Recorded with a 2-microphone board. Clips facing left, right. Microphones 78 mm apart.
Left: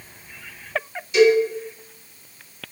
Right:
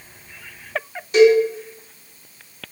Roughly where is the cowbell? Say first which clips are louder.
Right 3 dB; right.